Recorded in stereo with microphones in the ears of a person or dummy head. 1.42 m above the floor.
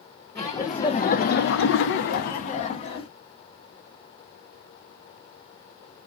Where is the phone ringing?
No phone ringing in this recording.